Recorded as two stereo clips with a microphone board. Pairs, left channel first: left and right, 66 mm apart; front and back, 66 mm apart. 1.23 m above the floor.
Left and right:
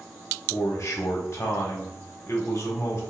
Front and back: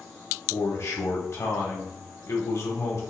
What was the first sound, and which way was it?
A man speaking, 45° left.